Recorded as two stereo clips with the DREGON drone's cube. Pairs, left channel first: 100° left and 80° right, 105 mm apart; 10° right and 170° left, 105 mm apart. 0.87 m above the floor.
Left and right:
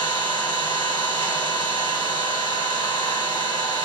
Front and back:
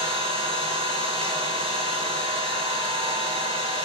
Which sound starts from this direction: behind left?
An engine running, at 0.0 s.